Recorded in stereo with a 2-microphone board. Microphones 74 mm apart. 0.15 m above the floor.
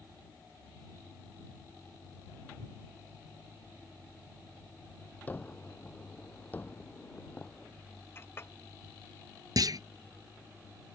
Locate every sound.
5.3 s a gunshot: 25° left (ahead or behind)
8.2 s a clink: 30° left (ahead or behind)
9.6 s a clunk: 60° right (ahead or behind)